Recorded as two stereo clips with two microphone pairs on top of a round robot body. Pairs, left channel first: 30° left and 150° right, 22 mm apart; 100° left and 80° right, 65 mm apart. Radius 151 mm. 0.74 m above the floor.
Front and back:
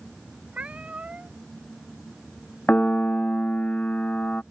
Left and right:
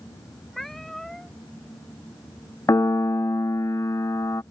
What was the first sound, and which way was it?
A cat meowing, 175° right.